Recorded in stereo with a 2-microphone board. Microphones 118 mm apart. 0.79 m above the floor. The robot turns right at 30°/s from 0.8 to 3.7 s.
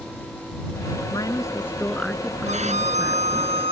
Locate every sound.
1.1 s a woman speaking: 145° left; by 3.5 s 145° right
2.5 s a violin: 95° right; by 3.7 s 60° right